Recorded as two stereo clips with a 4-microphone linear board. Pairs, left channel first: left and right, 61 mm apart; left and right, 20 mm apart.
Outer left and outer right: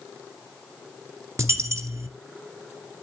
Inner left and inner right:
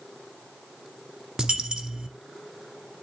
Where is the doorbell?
I don't hear a doorbell.